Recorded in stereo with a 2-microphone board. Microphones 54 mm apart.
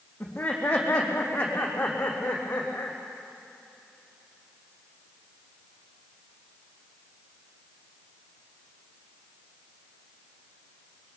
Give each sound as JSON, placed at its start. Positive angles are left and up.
{"t": 0.2, "sound": "laughter", "side_deg": 20, "distance_m": 5.5}